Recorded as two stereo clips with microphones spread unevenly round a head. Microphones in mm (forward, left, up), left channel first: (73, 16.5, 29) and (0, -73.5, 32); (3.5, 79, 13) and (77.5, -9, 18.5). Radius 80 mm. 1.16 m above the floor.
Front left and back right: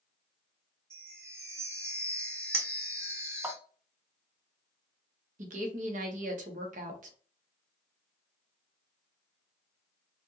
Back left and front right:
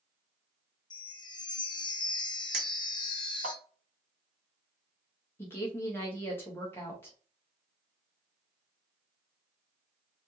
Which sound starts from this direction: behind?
A chime, at 0.9 s.